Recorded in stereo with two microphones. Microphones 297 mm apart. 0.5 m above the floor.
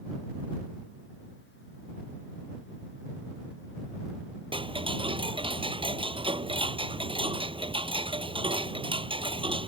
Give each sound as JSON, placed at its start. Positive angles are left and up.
{"t": 4.5, "sound": "ticking", "side_deg": -15}